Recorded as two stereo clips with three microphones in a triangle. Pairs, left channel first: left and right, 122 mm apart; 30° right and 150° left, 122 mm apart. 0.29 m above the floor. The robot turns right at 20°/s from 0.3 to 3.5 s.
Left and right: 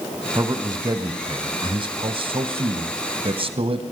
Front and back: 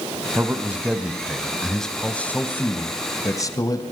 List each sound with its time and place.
0.3 s a man speaking: 145° right, 1.9 m; by 3.9 s 80° right, 1.9 m